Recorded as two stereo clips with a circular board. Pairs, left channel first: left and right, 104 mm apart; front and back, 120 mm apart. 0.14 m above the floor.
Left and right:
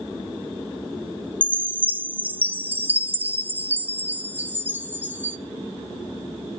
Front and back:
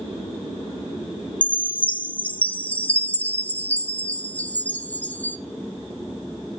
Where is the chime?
50° right, 0.6 m.